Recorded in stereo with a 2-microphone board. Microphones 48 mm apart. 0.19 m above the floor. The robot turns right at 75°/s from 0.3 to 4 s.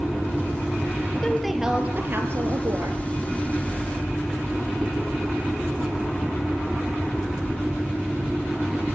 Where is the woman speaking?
165° left, 4 m; by 3.0 s 65° right, 4 m.